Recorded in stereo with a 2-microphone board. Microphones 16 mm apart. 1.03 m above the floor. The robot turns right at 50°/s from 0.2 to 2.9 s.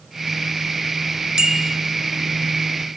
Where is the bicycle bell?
75° right (ahead or behind), 3.5 m; by 1.8 s 55° right (ahead or behind), 3.5 m.